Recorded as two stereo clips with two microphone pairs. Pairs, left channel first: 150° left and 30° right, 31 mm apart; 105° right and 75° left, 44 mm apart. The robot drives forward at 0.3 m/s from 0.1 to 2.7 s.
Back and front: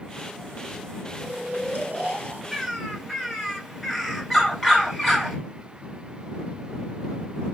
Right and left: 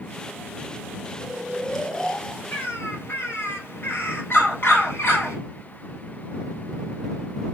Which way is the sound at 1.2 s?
25° right.